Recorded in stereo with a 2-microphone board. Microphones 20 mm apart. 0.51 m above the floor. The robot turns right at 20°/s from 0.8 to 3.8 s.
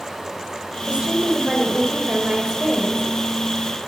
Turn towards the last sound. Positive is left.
turn(degrees=-20)